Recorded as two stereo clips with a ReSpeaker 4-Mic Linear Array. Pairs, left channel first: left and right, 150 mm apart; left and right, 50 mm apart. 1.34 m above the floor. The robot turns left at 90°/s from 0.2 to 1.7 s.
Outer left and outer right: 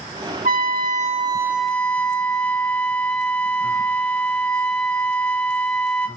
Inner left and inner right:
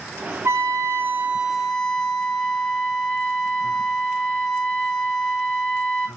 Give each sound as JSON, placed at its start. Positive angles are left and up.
{"t": 0.5, "sound": "a trumpet", "azimuth_deg": -75, "distance_m": 2.0}